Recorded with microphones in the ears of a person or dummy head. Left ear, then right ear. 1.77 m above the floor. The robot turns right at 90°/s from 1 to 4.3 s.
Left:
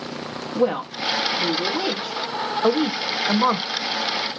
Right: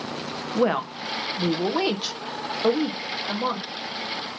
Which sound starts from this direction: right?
A woman speaking, at 0.6 s.